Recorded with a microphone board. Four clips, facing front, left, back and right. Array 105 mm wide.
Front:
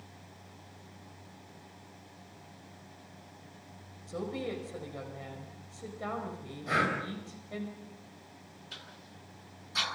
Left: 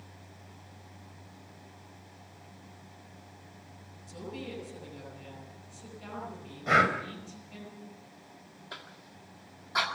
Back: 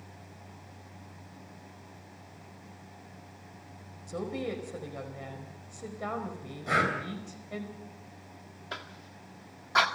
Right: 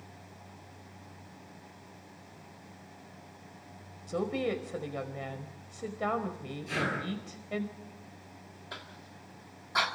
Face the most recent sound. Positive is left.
turn(degrees=-175)